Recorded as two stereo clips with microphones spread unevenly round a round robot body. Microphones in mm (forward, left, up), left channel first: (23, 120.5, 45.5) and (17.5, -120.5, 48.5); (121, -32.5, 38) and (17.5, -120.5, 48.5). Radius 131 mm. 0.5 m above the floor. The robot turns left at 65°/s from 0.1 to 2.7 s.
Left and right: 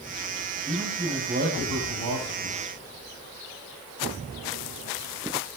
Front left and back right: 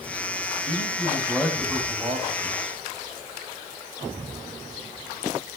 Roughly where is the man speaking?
Ahead.